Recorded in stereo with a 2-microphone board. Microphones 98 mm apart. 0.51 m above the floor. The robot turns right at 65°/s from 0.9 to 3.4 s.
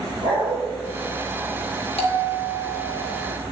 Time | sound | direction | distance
0.2 | a dog barking | 50° right (ahead or behind) | 3.5 m
2.0 | a bell | 80° left | 2.5 m